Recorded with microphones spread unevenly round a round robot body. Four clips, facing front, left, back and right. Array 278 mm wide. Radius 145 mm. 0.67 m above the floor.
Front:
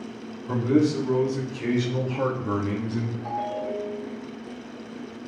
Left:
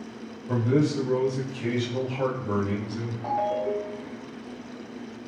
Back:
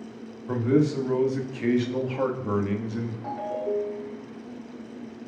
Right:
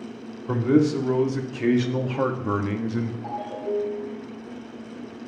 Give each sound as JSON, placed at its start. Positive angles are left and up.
{"t": 0.5, "sound": "a man speaking", "azimuth_deg": -95, "distance_m": 2.0}
{"t": 3.2, "sound": "a ringtone", "azimuth_deg": 125, "distance_m": 2.5}